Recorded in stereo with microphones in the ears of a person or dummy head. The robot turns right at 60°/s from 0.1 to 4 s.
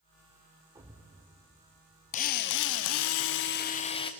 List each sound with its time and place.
0.8 s a thud: 20° right (ahead or behind), 2.5 m; by 1.1 s 5° right (ahead or behind), 2.5 m
2.1 s a drill: 40° left, 1.0 m; by 4.1 s 155° left, 1.0 m